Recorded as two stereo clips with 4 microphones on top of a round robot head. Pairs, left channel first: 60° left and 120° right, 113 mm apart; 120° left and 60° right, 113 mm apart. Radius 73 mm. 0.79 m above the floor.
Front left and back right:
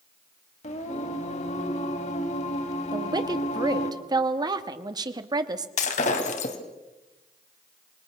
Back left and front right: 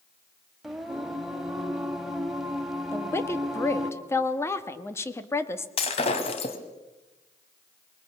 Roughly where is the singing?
Ahead left.